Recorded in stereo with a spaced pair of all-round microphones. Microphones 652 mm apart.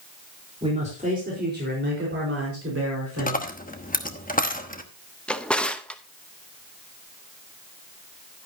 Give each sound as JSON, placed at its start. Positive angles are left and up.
{"t": 0.6, "sound": "a man speaking", "side_deg": -10, "distance_m": 4.0}
{"t": 3.2, "sound": "a dropped coin", "side_deg": 15, "distance_m": 1.0}
{"t": 5.3, "sound": "a drawer", "side_deg": 0, "distance_m": 0.7}